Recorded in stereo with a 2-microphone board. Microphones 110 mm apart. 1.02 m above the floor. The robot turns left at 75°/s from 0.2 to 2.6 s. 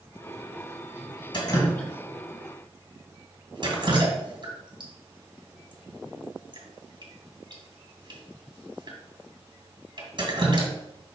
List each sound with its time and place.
1.3 s dripping: 45° left (ahead or behind), 2 m; by 10.7 s 45° right (ahead or behind), 2 m